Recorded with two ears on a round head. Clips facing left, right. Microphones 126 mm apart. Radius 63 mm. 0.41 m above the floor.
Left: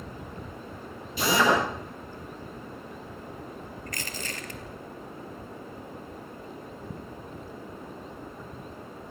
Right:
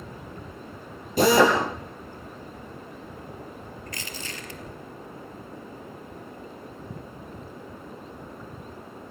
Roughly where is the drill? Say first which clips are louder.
Right 5 dB; right.